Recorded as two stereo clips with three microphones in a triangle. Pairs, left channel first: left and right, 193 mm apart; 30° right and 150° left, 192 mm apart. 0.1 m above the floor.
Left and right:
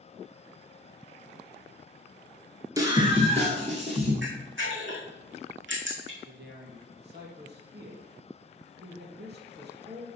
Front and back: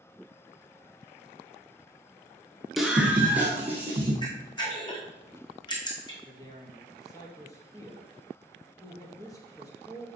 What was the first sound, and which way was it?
A scream, 125° right.